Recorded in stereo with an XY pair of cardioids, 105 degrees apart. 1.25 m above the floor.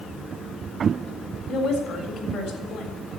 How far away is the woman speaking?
About 3.5 m.